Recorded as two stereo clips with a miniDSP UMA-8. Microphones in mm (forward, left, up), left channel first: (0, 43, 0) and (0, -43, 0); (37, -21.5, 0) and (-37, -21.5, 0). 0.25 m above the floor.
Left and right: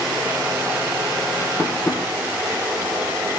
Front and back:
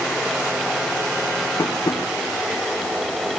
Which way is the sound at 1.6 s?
30° left.